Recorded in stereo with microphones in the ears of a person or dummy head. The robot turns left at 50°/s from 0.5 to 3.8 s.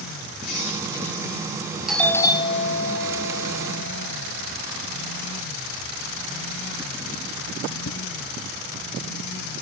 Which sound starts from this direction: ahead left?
A squeak, at 0.4 s.